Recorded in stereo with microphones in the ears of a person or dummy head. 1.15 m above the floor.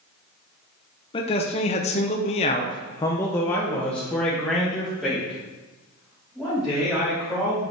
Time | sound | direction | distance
1.1 | a man speaking | 25° left (ahead or behind) | 1.0 m